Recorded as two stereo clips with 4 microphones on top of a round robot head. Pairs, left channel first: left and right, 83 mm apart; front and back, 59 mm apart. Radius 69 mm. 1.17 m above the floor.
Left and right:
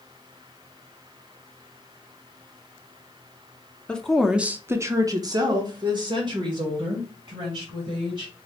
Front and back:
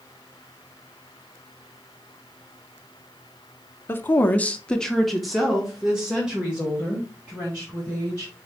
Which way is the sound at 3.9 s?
15° left.